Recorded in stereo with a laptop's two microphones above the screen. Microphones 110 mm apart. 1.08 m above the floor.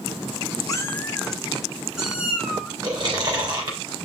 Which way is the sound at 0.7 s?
30° left (ahead or behind).